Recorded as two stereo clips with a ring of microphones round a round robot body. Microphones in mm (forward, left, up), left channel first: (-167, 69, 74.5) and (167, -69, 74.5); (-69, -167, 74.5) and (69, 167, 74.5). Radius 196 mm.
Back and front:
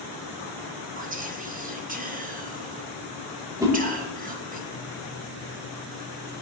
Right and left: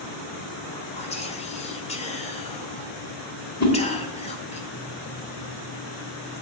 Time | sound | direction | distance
1.0 | whispering | 60° right | 0.9 m
3.6 | a whoosh | 100° right | 1.6 m